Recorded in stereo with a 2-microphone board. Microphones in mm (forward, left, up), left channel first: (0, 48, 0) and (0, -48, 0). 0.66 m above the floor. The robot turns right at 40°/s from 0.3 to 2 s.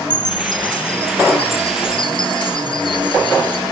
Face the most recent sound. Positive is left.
turn(degrees=120)